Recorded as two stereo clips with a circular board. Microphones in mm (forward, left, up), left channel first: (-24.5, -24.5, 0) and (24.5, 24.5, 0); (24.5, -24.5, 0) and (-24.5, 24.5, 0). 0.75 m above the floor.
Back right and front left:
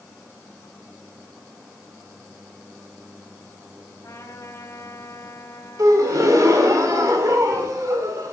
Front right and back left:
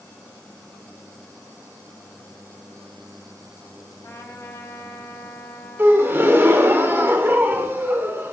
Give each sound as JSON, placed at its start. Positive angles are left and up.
{"t": 4.0, "sound": "a trumpet", "azimuth_deg": -90, "distance_m": 4.0}
{"t": 5.8, "sound": "a gasp", "azimuth_deg": 75, "distance_m": 2.5}